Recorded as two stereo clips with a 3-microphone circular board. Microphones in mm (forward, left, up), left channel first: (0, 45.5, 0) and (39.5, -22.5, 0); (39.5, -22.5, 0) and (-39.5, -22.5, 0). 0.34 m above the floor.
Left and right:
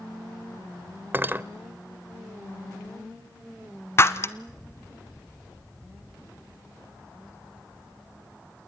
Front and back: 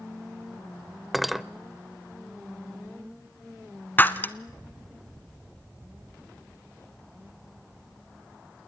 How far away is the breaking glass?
About 0.9 m.